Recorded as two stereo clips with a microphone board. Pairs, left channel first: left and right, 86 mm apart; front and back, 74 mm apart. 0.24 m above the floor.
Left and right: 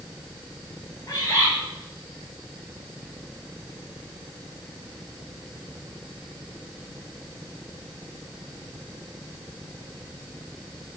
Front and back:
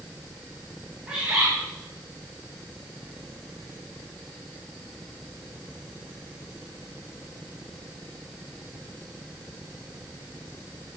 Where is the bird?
100° left, 1.6 m.